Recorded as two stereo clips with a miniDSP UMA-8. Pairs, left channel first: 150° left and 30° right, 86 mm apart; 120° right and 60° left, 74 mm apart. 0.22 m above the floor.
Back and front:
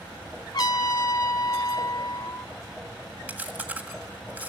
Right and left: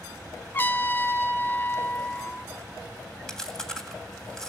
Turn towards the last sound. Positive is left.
turn(degrees=-60)